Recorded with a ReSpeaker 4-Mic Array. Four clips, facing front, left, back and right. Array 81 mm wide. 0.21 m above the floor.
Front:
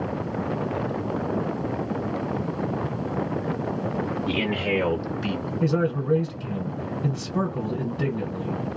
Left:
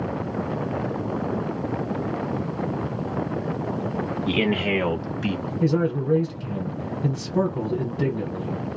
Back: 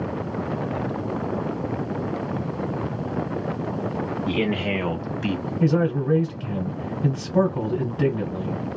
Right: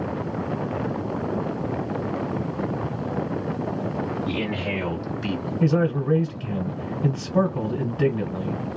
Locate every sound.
4.3 s a man speaking: 90° left, 1.7 m; by 5.5 s 175° right, 1.2 m
5.6 s a man speaking: 140° right, 1.4 m